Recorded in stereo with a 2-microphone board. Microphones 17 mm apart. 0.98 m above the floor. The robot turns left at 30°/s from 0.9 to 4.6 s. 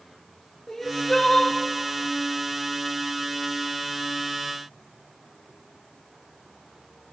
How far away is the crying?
About 1.1 m.